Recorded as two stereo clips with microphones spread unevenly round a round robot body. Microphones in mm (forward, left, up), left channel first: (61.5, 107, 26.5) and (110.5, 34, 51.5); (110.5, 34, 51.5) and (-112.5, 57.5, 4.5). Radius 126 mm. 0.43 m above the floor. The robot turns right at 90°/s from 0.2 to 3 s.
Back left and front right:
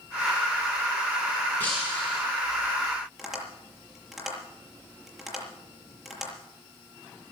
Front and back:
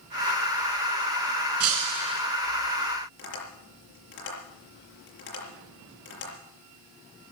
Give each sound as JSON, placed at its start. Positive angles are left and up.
{"t": 1.6, "sound": "breaking glass", "azimuth_deg": -160, "distance_m": 2.0}
{"t": 3.2, "sound": "tapping", "azimuth_deg": 30, "distance_m": 7.0}